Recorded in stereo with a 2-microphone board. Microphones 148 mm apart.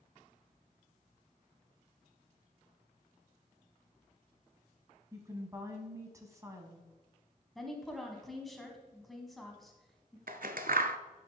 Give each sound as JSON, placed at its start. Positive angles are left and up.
{"t": 5.1, "sound": "a woman speaking", "side_deg": -20, "distance_m": 1.1}
{"t": 7.5, "sound": "a woman speaking", "side_deg": 0, "distance_m": 1.5}
{"t": 10.3, "sound": "scissors", "side_deg": -75, "distance_m": 0.6}